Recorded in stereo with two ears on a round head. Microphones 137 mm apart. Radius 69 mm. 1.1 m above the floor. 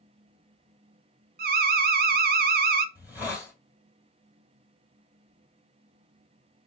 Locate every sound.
1.4 s an alarm: 65° right (ahead or behind), 0.6 m
3.0 s a hiss: 15° right (ahead or behind), 2 m